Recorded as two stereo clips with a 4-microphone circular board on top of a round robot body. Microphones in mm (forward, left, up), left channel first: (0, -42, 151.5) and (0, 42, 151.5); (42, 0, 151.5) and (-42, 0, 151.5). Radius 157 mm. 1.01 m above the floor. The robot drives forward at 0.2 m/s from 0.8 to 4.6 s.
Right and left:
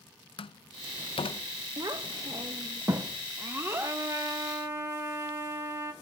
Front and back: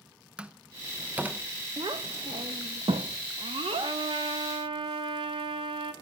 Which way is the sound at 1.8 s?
140° left.